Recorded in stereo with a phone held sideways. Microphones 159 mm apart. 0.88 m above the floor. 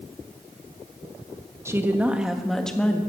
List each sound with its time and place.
1.6 s a woman speaking: 15° right (ahead or behind), 1.1 m; by 3.0 s 10° left (ahead or behind), 1.5 m